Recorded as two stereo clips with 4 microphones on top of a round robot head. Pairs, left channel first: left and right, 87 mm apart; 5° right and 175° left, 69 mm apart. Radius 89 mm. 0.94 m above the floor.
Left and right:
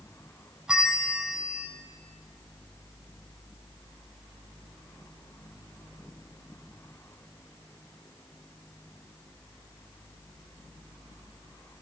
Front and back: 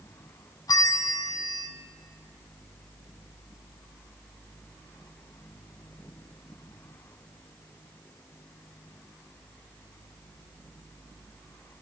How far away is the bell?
About 0.8 m.